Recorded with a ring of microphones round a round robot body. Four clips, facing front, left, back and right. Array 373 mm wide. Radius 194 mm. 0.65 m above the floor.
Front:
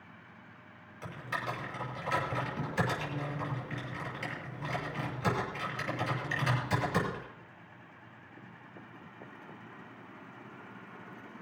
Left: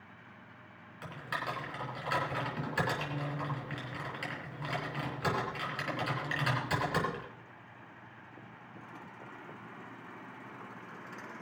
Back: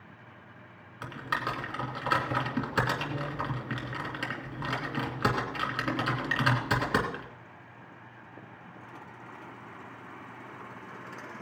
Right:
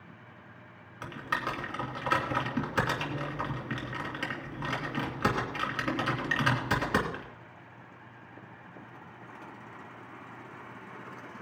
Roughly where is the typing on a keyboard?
Behind right.